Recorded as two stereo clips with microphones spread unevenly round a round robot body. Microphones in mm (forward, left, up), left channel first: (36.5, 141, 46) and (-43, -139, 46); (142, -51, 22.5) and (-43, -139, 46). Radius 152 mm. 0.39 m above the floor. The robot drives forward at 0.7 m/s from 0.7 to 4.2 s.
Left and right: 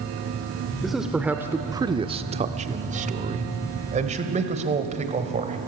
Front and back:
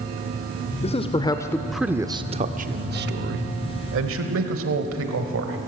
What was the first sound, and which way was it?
A man speaking, 15° right.